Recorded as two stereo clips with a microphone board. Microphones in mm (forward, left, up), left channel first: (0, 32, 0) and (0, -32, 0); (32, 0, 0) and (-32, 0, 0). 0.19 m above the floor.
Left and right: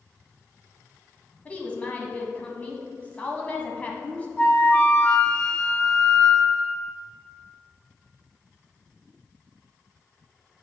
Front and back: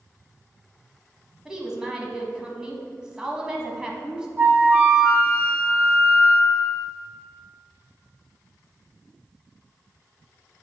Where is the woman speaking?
120° left, 1.3 m.